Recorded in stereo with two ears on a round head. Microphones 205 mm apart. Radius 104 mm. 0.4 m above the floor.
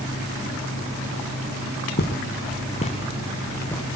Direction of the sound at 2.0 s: 45° left (ahead or behind).